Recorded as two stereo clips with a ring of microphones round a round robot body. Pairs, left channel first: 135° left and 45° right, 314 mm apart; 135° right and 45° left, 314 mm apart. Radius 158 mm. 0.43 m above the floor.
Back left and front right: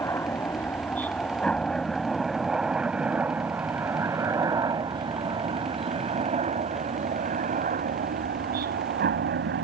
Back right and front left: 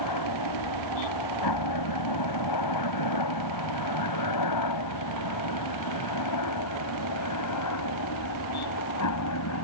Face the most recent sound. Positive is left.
turn(degrees=-100)